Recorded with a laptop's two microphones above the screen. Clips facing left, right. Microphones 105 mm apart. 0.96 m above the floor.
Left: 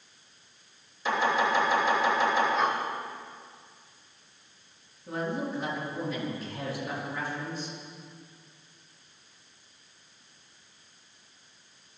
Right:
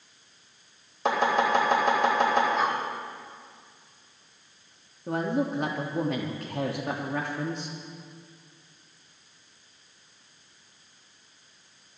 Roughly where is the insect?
I don't hear an insect.